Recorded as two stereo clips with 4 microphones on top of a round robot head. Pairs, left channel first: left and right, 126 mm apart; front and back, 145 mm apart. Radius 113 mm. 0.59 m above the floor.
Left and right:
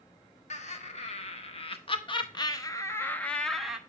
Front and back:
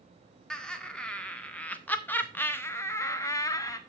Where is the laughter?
85° left, 1.9 m; by 3.8 s 15° right, 1.0 m.